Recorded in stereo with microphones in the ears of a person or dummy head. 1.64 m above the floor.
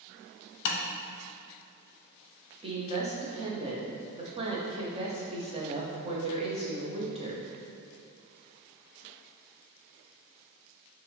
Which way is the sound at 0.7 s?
60° left (ahead or behind).